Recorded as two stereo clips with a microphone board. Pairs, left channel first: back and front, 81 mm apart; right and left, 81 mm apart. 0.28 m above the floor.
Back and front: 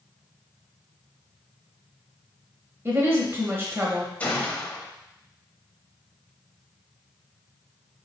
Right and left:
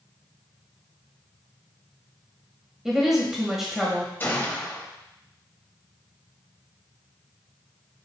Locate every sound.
2.9 s a woman speaking: 10° left, 1.0 m
4.2 s a gunshot: 125° right, 0.8 m